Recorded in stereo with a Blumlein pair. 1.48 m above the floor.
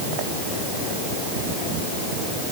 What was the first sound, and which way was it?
Only background noise.